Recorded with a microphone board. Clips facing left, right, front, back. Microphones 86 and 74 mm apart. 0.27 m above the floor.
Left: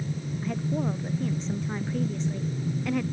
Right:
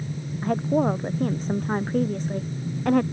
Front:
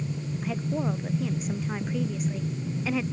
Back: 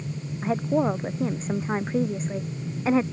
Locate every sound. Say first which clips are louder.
0.4 s a woman speaking: right 8 dB, back 7 dB; 130° right